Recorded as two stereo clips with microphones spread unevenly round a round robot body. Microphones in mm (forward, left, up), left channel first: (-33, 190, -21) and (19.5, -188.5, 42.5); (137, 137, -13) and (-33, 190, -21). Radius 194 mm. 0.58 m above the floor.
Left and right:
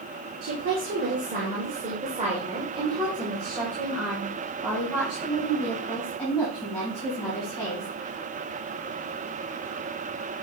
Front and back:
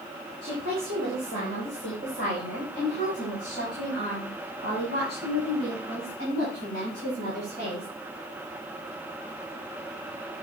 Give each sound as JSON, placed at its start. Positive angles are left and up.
{"t": 0.4, "sound": "a woman speaking", "azimuth_deg": -140, "distance_m": 2.5}